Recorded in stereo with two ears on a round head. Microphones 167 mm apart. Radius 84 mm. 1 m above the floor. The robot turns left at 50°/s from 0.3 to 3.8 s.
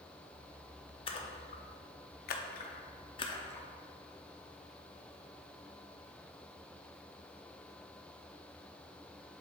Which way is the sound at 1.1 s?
30° left (ahead or behind).